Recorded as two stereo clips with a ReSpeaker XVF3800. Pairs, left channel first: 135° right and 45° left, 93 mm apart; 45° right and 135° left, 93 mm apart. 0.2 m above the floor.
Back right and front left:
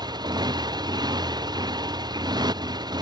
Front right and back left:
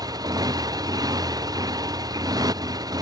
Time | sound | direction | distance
0.0 | a motorcycle | 90° left | ?